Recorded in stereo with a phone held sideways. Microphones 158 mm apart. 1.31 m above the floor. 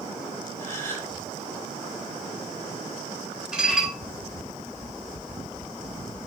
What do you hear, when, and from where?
0.6 s a gasp: 20° left (ahead or behind), 4 m
3.5 s dishes clattering: 5° right (ahead or behind), 4 m